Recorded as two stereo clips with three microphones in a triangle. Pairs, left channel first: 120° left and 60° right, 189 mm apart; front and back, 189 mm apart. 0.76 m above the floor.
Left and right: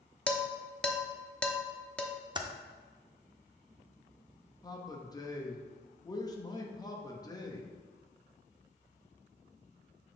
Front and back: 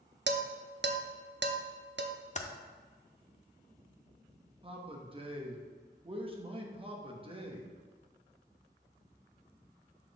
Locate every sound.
0.3 s dishes clattering: 155° right, 0.6 m
2.4 s typing on a keyboard: 10° right, 0.6 m
4.6 s a man speaking: 165° left, 0.9 m